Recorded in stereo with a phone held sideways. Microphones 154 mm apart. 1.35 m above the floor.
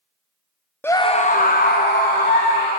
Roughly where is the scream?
Centre.